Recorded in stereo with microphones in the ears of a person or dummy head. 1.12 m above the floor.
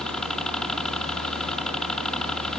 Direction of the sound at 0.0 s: 5° left (ahead or behind).